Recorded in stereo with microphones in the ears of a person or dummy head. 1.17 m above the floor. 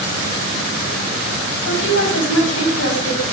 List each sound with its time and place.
1.6 s a woman speaking: 85° left, 6 m